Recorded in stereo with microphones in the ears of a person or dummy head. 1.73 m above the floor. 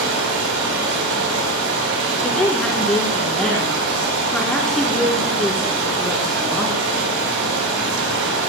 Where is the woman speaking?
10° left (ahead or behind), 2.5 m.